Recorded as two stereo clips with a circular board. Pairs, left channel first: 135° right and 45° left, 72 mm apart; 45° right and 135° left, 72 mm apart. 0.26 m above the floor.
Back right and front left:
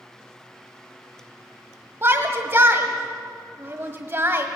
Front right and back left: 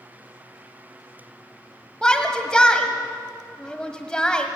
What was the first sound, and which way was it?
A shout, 25° left.